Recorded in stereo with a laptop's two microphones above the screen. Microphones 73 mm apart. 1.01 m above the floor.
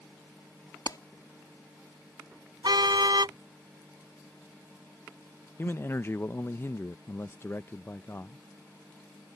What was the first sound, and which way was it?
A clap, 60° left (ahead or behind).